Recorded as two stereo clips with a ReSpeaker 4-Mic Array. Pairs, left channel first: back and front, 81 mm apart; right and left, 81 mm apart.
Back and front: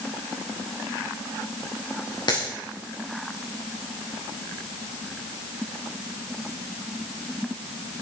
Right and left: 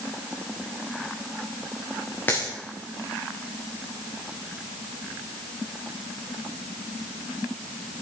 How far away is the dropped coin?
About 5 m.